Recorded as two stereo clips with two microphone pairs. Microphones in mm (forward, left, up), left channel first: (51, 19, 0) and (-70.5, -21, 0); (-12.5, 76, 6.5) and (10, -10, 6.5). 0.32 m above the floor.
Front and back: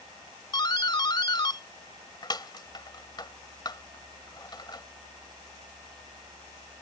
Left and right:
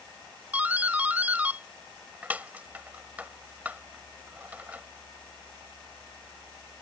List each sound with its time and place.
0.5 s a doorbell: 10° right